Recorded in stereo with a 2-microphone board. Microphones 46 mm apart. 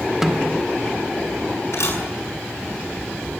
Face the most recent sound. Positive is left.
turn(degrees=65)  # may be behind; listen again after turning